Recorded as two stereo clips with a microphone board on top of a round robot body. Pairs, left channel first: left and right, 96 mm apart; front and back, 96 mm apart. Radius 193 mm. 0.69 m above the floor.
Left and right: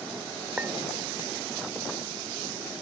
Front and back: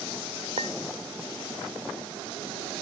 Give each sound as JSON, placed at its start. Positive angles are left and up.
{"t": 0.6, "sound": "a clink", "azimuth_deg": -165}